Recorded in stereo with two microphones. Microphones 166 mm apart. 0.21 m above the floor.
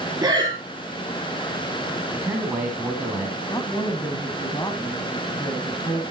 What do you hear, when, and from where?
0.2 s breathing: 25° right (ahead or behind), 5 m
2.1 s a man speaking: 10° right (ahead or behind), 1.6 m
3.5 s a woman speaking: 25° left (ahead or behind), 1.3 m